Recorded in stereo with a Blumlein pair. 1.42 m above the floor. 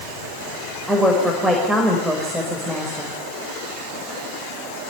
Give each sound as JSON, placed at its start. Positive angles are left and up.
{"t": 0.9, "sound": "a woman speaking", "azimuth_deg": 0, "distance_m": 5.5}